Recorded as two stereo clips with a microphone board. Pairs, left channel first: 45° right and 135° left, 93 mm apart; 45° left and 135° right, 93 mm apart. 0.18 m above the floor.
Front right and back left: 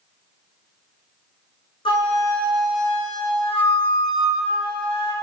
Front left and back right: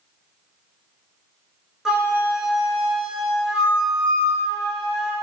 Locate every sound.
1.9 s a flute: 55° right, 0.8 m